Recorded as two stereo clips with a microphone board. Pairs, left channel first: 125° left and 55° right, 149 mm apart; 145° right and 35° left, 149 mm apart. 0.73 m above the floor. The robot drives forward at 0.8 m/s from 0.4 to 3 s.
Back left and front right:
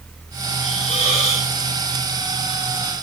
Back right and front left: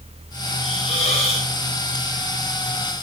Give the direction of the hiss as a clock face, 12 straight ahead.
6 o'clock.